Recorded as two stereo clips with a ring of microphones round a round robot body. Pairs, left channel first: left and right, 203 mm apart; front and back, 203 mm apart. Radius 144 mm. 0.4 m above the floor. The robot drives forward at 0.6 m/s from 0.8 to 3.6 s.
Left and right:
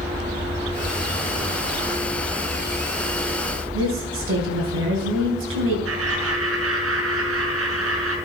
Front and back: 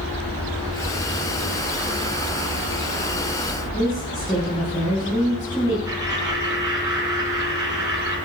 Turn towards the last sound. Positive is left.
turn(degrees=-100)